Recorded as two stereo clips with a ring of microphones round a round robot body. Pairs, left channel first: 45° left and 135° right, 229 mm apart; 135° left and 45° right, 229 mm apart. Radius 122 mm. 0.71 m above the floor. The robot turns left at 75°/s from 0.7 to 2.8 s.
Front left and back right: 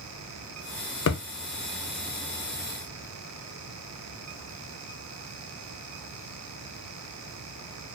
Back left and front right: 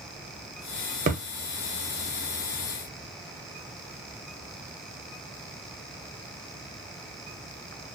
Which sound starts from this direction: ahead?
A thud, at 1.1 s.